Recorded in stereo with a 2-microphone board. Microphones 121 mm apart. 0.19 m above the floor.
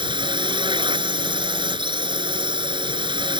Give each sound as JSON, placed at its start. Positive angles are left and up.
{"t": 0.0, "sound": "a drone", "side_deg": -45}